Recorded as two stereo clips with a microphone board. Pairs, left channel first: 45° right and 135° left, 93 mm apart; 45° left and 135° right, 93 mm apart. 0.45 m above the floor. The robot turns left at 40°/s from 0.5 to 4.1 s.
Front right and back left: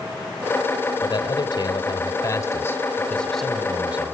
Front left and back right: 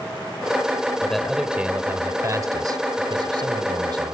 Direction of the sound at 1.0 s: 35° right.